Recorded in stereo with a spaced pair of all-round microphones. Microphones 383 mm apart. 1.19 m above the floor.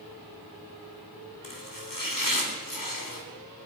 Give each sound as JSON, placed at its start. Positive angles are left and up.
{"t": 1.4, "sound": "chopping", "side_deg": 60, "distance_m": 3.5}